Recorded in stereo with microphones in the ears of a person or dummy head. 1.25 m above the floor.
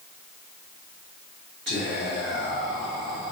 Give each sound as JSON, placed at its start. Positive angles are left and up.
{"t": 1.7, "sound": "whispering", "side_deg": -50, "distance_m": 1.4}